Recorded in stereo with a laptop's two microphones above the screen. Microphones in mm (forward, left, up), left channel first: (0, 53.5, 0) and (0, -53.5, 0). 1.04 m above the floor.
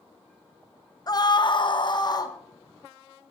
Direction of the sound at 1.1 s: 35° left (ahead or behind).